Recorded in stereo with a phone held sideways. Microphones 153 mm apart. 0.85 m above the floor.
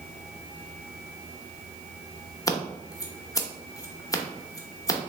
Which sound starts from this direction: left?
Scissors, at 2.5 s.